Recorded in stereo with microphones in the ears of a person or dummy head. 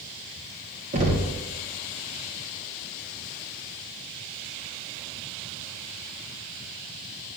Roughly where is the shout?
No shout in this recording.